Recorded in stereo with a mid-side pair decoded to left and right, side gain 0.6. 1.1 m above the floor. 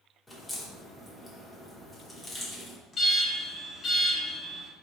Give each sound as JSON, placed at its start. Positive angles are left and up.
{"t": 0.3, "sound": "a crack", "azimuth_deg": 15, "distance_m": 2.5}
{"t": 2.9, "sound": "an alarm", "azimuth_deg": 40, "distance_m": 2.5}